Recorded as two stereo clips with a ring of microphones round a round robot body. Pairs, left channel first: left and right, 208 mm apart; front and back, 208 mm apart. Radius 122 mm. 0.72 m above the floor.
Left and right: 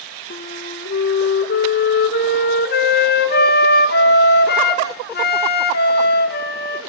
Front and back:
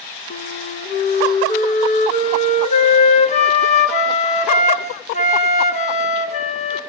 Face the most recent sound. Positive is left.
turn(degrees=55)